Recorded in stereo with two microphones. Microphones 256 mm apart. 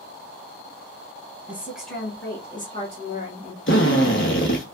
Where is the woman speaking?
10° right (ahead or behind), 1.6 m; by 3.6 s 40° left (ahead or behind), 1.8 m.